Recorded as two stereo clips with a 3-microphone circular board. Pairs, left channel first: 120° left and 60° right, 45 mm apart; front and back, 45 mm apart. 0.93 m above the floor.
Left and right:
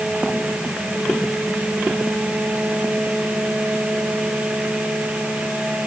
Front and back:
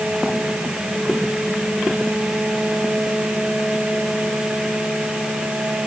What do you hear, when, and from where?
Only background noise.